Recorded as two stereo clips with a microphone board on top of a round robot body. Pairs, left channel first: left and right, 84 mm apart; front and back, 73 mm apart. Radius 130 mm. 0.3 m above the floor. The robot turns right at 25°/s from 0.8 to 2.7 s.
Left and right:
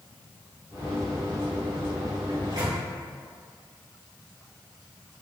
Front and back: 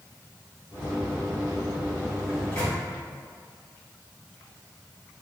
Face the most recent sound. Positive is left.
turn(degrees=-65)